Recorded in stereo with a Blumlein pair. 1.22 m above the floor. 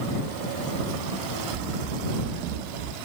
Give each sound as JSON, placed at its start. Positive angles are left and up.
{"t": 1.5, "sound": "running footsteps", "azimuth_deg": -45}